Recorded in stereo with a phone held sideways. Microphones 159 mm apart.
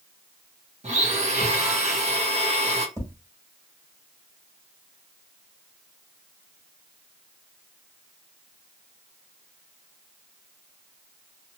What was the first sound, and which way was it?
A blender, 45° right (ahead or behind).